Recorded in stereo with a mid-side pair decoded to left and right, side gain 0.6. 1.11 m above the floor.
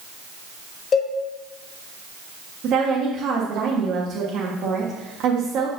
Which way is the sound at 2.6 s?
60° right.